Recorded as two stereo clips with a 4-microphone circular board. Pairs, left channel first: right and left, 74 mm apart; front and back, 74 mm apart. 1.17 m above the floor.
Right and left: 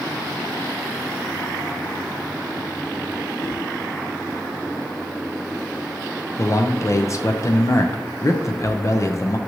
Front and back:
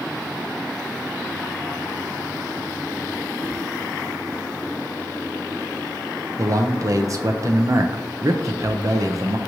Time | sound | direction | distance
3.4 | a whoosh | 40° right | 1.2 m
6.4 | a man speaking | 140° right | 0.5 m